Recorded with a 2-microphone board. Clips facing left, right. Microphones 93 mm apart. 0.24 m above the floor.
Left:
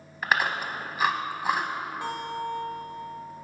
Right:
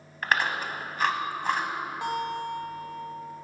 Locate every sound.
0.2 s chewing: 5° left (ahead or behind), 0.6 m
2.0 s a guitar: 20° right (ahead or behind), 1.1 m